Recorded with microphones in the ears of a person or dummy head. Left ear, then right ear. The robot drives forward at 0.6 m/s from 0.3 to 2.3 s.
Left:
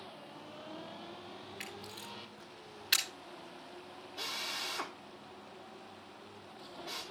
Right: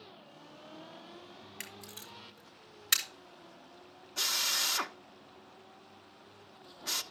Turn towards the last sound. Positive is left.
turn(degrees=-70)  # may be behind; listen again after turning